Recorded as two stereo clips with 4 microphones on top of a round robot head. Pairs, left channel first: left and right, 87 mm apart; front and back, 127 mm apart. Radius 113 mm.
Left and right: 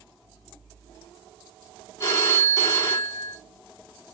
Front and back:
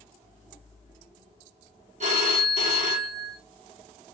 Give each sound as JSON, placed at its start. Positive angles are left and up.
{"t": 2.0, "sound": "a phone ringing", "azimuth_deg": 145, "distance_m": 1.1}